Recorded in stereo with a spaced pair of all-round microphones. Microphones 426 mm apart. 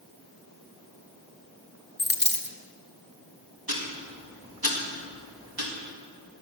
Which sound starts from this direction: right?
Ticking, at 3.7 s.